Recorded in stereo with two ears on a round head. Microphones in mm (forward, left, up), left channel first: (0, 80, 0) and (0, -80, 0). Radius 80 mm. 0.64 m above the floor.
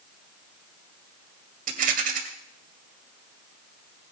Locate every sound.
1.7 s a rattle: 45° right (ahead or behind), 2 m